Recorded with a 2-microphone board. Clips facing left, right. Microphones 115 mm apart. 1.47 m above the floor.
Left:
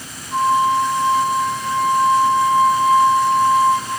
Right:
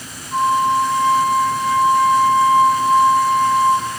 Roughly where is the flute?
Centre.